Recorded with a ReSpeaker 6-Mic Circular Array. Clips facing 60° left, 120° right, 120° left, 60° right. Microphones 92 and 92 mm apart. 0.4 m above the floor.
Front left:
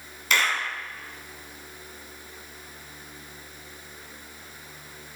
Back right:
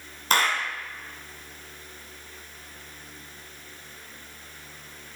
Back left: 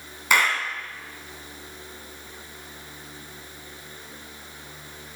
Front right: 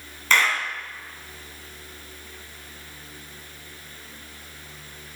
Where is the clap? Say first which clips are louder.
Back right 2 dB, even; 165° right, 3 m.